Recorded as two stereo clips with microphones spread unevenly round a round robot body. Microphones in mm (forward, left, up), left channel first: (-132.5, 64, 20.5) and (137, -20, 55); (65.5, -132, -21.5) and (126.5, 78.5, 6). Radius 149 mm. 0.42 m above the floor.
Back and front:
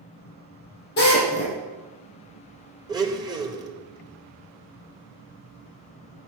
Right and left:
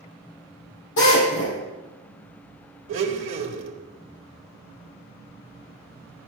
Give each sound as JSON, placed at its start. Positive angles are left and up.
{"t": 1.0, "sound": "a drill", "azimuth_deg": -140, "distance_m": 6.0}
{"t": 2.9, "sound": "a blender", "azimuth_deg": 60, "distance_m": 2.0}